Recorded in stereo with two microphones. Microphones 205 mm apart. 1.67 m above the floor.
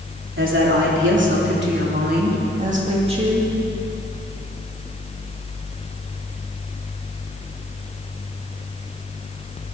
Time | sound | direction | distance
0.4 | a woman speaking | 75° right (ahead or behind) | 3.5 m